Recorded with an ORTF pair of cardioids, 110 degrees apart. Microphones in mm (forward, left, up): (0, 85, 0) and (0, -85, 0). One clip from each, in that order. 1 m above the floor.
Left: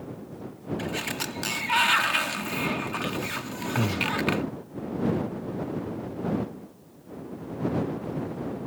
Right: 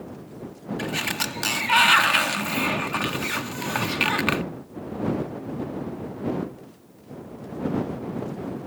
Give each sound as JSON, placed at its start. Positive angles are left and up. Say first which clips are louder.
{"t": 0.8, "sound": "a sliding door", "louder": "right 5 dB", "azimuth_deg": -25}
{"t": 3.8, "sound": "breathing", "louder": "right 4 dB", "azimuth_deg": 35}